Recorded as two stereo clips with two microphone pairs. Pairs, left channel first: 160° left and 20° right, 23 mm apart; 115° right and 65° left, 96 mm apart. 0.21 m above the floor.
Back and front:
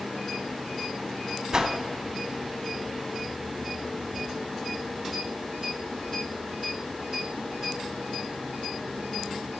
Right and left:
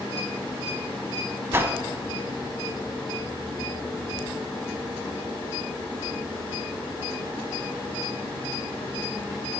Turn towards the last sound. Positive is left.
turn(degrees=15)